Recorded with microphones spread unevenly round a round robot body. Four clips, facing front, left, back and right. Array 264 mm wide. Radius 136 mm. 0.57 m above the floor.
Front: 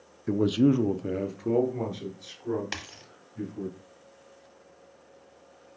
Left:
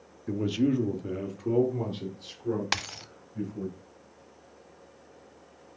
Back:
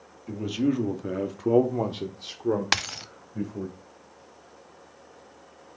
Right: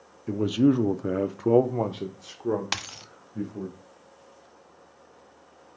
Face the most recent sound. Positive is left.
turn(degrees=-150)